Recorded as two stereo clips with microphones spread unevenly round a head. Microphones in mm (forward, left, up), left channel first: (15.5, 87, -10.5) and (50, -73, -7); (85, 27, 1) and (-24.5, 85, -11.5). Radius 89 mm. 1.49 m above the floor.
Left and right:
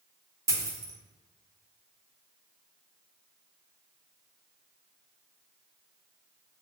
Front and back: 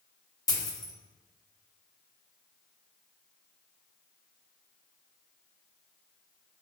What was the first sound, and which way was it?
A dropped coin, 25° right.